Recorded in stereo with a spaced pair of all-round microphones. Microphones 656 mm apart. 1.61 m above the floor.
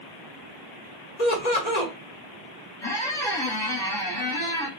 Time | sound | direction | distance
1.2 | laughter | 80° left | 1.4 m
2.8 | a squeak | 5° left (ahead or behind) | 0.9 m